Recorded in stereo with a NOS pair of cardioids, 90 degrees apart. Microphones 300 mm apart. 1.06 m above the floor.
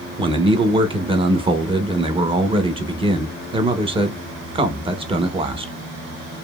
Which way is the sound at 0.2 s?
15° right.